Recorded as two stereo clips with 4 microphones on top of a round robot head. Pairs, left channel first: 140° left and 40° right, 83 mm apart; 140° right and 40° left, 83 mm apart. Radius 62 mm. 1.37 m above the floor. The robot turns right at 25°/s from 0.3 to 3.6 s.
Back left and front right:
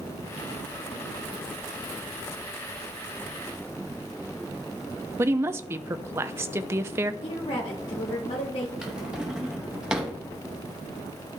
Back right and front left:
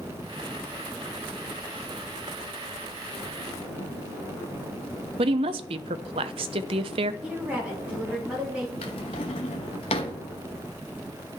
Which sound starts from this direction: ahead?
A woman speaking, at 5.2 s.